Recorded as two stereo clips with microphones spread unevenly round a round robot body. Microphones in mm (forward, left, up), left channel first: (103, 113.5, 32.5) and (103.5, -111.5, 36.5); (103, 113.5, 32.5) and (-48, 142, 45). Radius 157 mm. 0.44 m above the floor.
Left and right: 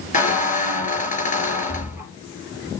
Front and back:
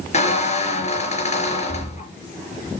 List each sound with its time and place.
0.1 s a squeak: 35° left, 3 m